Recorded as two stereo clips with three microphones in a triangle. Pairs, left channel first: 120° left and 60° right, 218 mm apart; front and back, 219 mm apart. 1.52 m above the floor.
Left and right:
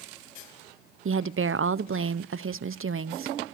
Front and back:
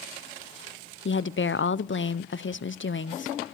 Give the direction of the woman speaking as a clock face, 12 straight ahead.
1 o'clock.